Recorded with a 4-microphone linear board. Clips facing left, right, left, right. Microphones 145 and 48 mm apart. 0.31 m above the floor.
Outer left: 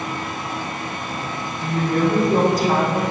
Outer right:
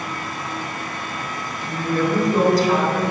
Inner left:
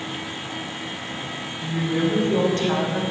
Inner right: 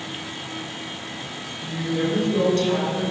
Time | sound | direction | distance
1.6 | a woman speaking | 55° left (ahead or behind) | 1.9 m